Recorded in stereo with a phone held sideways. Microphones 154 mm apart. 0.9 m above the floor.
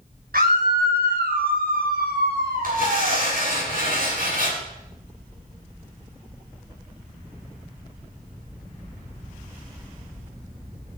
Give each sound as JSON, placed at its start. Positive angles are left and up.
{"t": 0.3, "sound": "a scream", "side_deg": -70, "distance_m": 4.0}
{"t": 2.6, "sound": "tearing paper", "side_deg": -65, "distance_m": 7.5}